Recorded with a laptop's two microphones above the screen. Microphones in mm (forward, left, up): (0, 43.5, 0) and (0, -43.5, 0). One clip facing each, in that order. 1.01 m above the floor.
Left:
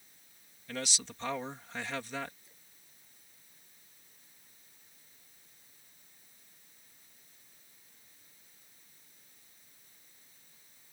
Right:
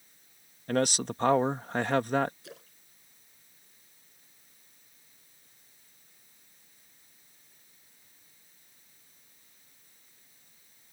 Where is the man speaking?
50° right (ahead or behind).